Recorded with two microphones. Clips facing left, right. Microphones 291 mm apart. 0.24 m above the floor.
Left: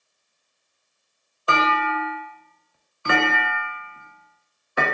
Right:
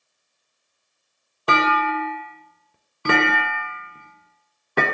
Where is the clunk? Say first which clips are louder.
Right 2 dB; 75° right (ahead or behind), 0.6 m.